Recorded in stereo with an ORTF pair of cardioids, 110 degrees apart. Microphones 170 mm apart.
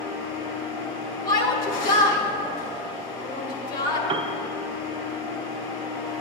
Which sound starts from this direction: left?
A machine running, at 0.0 s.